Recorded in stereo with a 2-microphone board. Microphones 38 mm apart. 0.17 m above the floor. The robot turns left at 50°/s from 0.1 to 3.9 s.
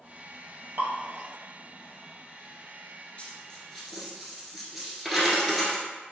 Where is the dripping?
70° right (ahead or behind), 1.0 m; by 0.9 s 65° right (ahead or behind), 1.0 m.